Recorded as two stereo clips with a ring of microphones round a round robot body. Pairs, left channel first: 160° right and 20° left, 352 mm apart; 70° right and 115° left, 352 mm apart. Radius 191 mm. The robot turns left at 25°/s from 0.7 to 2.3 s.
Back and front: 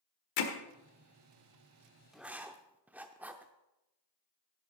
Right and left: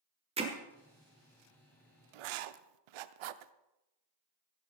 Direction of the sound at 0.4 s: 175° right.